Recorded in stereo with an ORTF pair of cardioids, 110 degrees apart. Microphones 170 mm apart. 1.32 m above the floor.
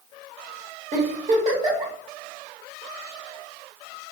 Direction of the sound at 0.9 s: 45° right.